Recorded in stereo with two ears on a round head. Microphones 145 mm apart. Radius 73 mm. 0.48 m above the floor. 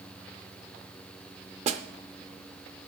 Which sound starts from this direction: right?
A snare drum, at 1.7 s.